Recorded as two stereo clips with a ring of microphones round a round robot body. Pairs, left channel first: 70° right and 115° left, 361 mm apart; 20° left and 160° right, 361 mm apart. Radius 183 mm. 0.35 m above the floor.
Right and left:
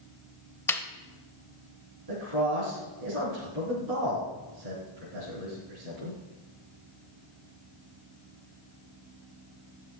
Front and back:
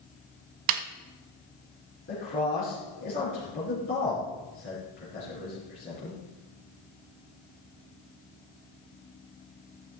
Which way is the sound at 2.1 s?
80° left.